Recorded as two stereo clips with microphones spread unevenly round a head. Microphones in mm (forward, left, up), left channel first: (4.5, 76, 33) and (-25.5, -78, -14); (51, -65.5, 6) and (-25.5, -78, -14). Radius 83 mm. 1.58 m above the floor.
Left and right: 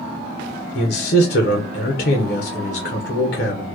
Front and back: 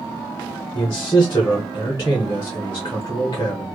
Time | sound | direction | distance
0.8 | a man speaking | 70° left | 1.0 m